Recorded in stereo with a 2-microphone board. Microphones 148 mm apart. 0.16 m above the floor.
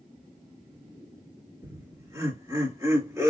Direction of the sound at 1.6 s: 20° right (ahead or behind).